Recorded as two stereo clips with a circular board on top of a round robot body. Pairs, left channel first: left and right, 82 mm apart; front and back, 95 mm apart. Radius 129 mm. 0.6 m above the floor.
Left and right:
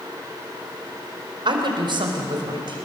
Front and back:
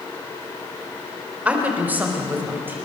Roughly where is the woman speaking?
Right.